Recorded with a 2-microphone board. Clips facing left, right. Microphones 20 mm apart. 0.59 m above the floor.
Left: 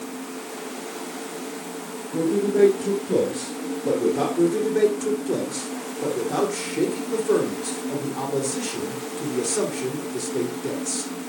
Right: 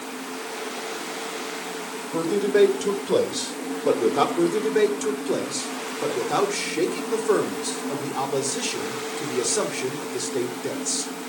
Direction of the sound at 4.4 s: 30° right (ahead or behind).